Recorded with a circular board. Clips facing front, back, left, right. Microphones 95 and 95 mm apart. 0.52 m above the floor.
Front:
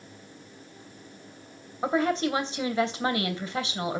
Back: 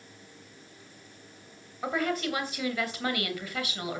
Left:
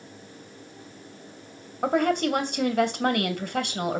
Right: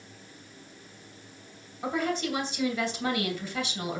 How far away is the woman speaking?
About 2.5 m.